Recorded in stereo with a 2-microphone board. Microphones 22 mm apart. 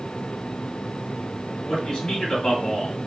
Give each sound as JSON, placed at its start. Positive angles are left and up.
{"t": 1.6, "sound": "a man speaking", "side_deg": 30, "distance_m": 1.8}